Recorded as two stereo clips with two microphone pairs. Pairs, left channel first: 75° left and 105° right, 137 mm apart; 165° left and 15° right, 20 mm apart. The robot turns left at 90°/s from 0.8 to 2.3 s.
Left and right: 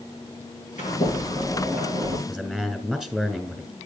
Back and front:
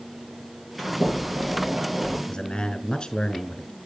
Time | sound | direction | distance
0.8 | a sliding door | 65° left | 8 m
2.3 | a man speaking | 170° left | 2 m